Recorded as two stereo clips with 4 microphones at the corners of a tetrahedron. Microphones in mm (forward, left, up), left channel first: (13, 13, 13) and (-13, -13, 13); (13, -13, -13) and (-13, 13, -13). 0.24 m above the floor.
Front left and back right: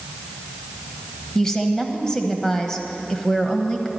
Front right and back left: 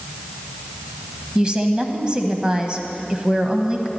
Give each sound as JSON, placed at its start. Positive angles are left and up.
{"t": 1.4, "sound": "a woman speaking", "azimuth_deg": 105, "distance_m": 1.1}